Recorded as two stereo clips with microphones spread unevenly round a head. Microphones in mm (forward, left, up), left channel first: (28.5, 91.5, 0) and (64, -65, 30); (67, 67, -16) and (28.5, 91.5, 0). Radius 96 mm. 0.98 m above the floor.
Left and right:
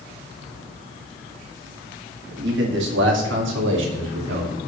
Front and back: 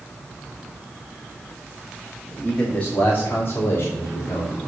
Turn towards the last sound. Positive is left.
turn(degrees=-80)